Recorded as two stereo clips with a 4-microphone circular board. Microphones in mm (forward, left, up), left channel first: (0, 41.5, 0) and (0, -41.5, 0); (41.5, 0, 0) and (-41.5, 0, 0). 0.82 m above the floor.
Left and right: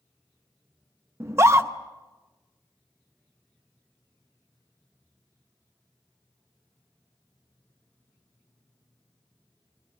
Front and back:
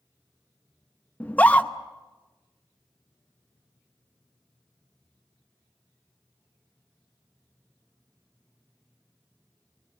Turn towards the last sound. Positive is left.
turn(degrees=-60)